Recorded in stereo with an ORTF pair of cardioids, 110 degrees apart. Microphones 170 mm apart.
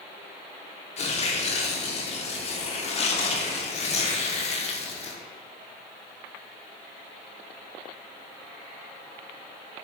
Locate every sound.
1.0 s tearing paper: 40° left, 0.7 m